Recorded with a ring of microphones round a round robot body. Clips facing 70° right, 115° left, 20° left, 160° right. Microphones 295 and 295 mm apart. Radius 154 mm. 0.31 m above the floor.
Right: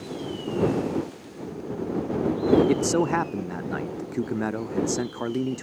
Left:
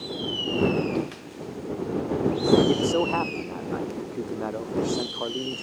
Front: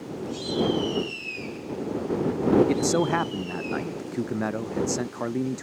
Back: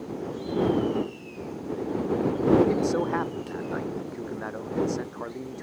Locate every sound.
2.7 s a man speaking: 15° right